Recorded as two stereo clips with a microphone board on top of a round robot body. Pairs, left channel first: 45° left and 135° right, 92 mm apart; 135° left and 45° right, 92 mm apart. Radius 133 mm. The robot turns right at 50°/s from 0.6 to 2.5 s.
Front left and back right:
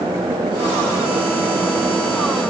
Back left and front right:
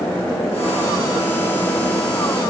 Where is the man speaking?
I don't hear a man speaking.